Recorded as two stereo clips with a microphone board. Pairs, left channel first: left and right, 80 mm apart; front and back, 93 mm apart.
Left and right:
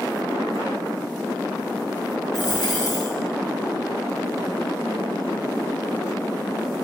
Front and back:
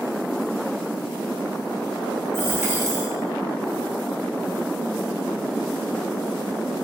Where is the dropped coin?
120° left, 1.3 m.